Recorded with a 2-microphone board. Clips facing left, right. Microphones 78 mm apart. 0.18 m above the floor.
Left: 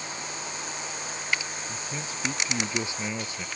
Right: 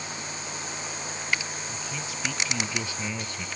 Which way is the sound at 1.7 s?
35° left (ahead or behind).